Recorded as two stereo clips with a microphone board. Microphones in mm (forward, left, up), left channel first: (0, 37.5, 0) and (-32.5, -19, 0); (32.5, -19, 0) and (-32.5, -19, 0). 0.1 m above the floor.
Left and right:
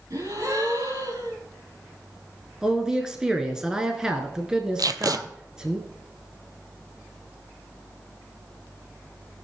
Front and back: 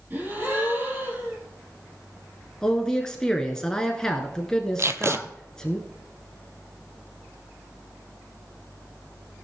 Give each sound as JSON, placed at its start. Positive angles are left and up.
{"t": 0.1, "sound": "a gasp", "azimuth_deg": -125, "distance_m": 4.0}
{"t": 2.6, "sound": "a man speaking", "azimuth_deg": -60, "distance_m": 1.2}
{"t": 4.8, "sound": "tape being pulled", "azimuth_deg": -135, "distance_m": 0.6}